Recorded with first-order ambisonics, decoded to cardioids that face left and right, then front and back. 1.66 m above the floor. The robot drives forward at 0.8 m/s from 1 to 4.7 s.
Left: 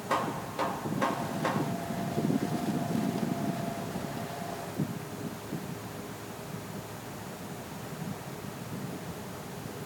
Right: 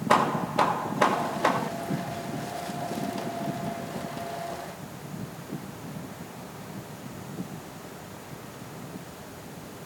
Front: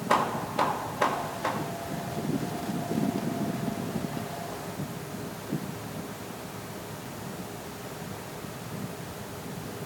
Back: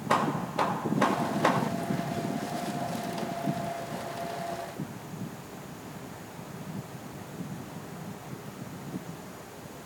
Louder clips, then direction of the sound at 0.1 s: Right 8 dB, front 1 dB; 80° right.